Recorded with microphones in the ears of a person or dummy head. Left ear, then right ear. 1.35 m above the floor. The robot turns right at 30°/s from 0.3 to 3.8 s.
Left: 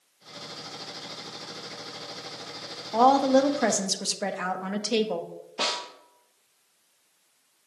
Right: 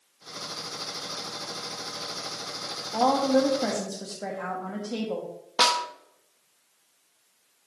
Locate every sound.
2.9 s a woman speaking: 60° left (ahead or behind), 1.1 m; by 5.3 s 80° left, 1.1 m
5.6 s a snare drum: 55° right (ahead or behind), 1.1 m